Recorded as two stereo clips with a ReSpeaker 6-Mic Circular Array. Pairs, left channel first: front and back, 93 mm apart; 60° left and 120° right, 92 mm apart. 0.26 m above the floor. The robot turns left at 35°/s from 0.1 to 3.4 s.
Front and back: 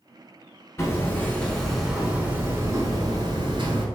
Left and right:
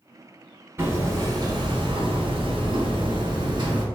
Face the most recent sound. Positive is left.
turn(degrees=-150)